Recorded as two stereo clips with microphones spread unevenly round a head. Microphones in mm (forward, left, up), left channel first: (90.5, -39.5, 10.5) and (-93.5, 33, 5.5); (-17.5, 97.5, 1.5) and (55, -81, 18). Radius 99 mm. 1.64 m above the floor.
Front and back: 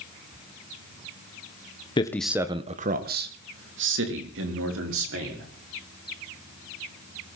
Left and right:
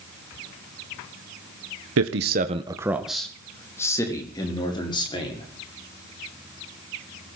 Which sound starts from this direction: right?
A man speaking, at 2.0 s.